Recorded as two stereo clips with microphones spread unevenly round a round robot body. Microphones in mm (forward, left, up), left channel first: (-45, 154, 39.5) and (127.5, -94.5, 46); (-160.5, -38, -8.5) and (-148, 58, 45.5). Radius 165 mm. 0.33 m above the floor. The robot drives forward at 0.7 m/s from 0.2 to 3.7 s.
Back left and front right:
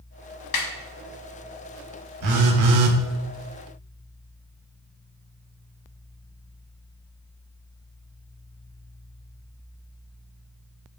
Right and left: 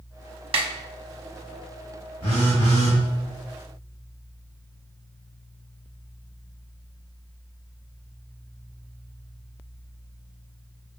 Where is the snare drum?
115° left, 0.8 m; by 0.7 s 120° left, 0.8 m.